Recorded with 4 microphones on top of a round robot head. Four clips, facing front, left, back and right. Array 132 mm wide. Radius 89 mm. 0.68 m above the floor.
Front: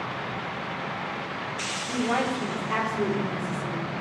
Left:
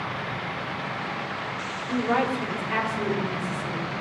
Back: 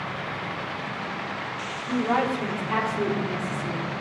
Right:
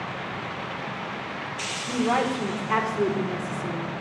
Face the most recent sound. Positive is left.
turn(degrees=-95)